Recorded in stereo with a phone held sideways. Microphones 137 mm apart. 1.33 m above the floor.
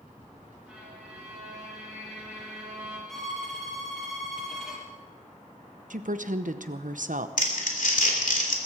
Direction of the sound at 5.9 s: 75° right (ahead or behind).